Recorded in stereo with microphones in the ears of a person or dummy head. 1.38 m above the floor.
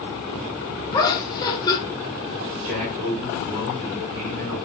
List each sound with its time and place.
0.9 s laughter: 15° left (ahead or behind), 0.7 m
2.6 s a man speaking: 45° right (ahead or behind), 3 m